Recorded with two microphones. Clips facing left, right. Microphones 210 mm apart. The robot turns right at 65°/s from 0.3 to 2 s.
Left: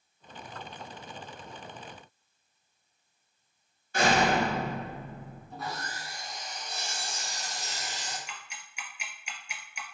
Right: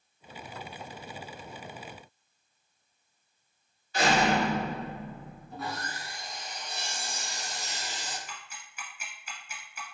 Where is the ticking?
15° left (ahead or behind), 0.9 m.